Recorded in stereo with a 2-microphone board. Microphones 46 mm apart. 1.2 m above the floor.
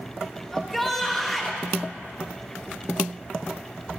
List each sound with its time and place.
0.5 s a shout: 5° left (ahead or behind), 1.2 m